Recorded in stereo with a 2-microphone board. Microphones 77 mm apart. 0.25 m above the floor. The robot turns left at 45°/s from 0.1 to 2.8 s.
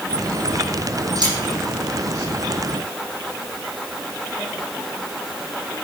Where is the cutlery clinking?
75° right (ahead or behind), 8 m; by 1.3 s 70° right (ahead or behind), 8 m.